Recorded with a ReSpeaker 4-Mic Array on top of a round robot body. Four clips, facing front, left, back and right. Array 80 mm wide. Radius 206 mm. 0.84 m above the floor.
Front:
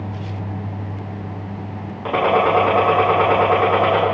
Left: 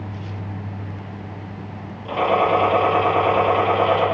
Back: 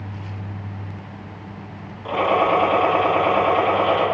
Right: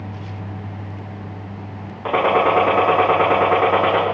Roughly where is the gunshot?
Right.